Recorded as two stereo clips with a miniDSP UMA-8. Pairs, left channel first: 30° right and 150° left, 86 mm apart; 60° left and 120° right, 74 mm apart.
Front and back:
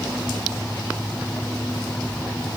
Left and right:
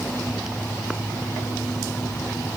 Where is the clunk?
I don't hear a clunk.